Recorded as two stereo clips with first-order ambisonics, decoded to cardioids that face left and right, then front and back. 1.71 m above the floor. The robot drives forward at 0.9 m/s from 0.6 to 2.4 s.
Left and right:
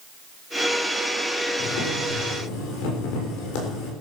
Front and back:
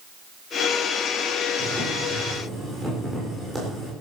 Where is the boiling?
90° left, 7 m; by 3.9 s 95° left, 7 m.